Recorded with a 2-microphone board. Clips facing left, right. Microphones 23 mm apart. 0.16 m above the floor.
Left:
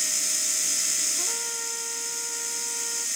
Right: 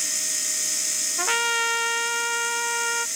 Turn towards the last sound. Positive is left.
turn(degrees=-85)